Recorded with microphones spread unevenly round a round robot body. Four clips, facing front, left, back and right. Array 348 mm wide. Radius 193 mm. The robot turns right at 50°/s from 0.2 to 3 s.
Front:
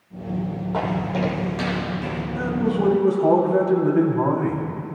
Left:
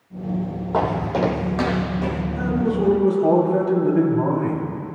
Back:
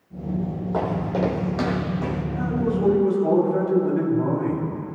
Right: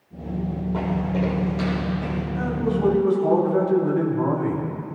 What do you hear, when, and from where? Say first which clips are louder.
0.7 s footsteps: left 6 dB, even; 75° left, 1.5 m; by 2.2 s 110° left, 2.5 m
2.4 s a man speaking: left 2 dB, front 2 dB; straight ahead, 4 m; by 4.7 s 30° left, 4 m